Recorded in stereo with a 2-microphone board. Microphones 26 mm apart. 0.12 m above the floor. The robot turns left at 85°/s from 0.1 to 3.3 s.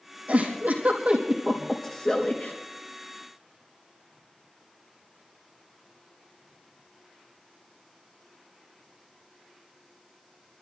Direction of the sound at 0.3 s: 60° right (ahead or behind).